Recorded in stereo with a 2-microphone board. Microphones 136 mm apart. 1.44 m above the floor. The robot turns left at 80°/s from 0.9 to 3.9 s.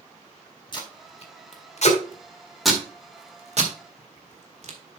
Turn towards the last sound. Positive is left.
turn(degrees=-55)  # may be behind; listen again after turning